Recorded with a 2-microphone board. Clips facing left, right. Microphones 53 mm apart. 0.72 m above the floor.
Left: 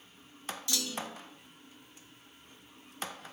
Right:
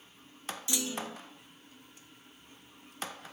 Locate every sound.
0.7 s a clunk: 20° right (ahead or behind), 0.5 m